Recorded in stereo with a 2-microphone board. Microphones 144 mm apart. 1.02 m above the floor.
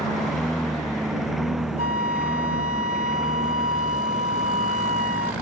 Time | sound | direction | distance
0.0 | a lawn mower | centre (ahead or behind) | ?
1.8 | a flute | 65° right (ahead or behind) | ?